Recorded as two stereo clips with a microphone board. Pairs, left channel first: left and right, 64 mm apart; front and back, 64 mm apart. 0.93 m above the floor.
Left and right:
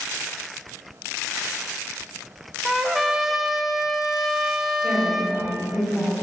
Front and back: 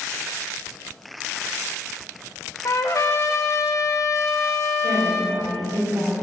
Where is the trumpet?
5° right, 0.7 m.